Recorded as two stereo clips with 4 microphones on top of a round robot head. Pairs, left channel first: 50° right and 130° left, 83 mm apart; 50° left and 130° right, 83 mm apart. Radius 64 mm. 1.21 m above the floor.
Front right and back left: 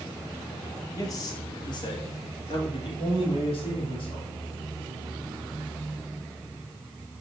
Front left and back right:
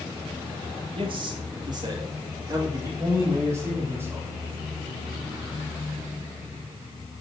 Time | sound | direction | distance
0.9 | a man speaking | 105° right | 1.5 m